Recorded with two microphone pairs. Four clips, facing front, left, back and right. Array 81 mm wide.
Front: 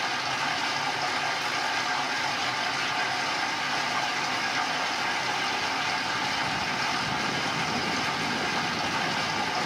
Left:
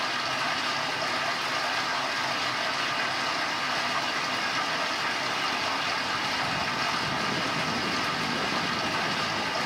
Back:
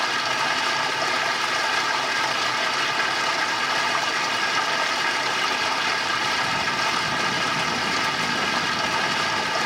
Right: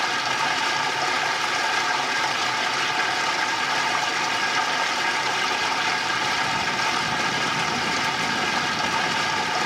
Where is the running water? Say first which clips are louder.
Right 5 dB, back 5 dB; 140° right, 1.6 m.